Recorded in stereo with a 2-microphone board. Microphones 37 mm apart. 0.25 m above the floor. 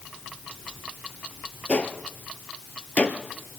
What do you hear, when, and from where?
1.7 s a gunshot: 40° left (ahead or behind), 1.6 m